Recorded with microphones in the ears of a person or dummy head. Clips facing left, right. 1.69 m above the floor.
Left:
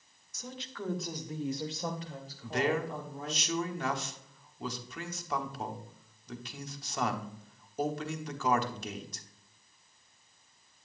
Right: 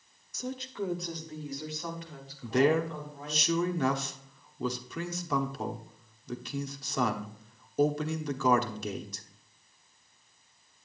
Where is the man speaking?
85° right, 1.1 m.